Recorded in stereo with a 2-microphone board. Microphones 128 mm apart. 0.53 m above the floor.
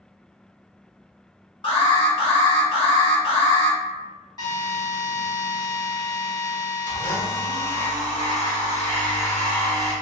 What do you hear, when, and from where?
1.6 s an alarm: 35° left (ahead or behind), 1.4 m
4.4 s a drill: 30° left (ahead or behind), 1.4 m
6.9 s a blender: 15° left (ahead or behind), 1.0 m